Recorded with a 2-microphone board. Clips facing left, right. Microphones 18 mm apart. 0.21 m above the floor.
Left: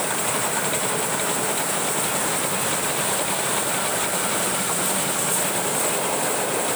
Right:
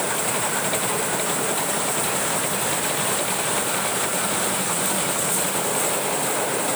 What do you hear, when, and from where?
Only background noise.